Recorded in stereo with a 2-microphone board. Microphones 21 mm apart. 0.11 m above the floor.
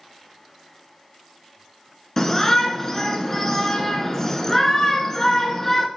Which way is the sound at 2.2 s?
20° left (ahead or behind).